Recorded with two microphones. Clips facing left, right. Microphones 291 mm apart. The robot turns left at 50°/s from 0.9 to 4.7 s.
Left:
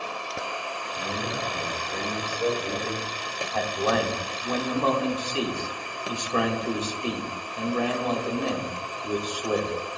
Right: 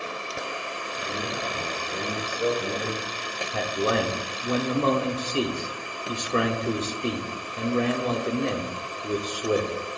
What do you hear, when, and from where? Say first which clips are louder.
1.0 s a man speaking: left 1 dB; 55° left, 4.5 m; by 3.4 s 70° right, 4.5 m
3.5 s a man speaking: right 1 dB; 25° right (ahead or behind), 1.3 m